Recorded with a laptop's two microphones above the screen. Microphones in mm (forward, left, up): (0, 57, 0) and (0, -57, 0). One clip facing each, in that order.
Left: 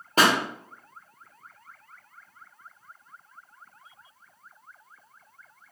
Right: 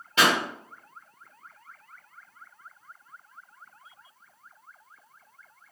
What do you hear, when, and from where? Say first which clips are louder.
0.2 s a pop: left 2 dB; 40° left (ahead or behind), 0.7 m